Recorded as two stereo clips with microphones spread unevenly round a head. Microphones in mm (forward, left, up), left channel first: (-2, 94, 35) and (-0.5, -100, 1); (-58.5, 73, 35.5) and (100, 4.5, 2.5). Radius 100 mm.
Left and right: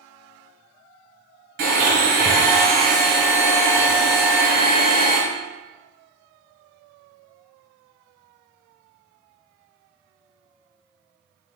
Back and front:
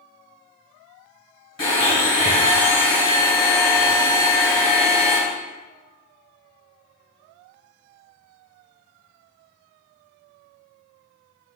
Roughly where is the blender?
Behind right.